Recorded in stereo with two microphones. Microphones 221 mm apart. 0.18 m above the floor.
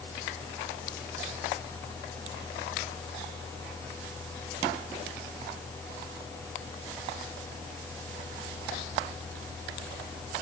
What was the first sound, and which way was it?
Only background noise.